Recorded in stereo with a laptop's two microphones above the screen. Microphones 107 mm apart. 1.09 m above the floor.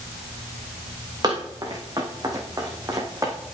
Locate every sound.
1.2 s running footsteps: 40° right (ahead or behind), 5 m; by 3.3 s 30° right (ahead or behind), 4.5 m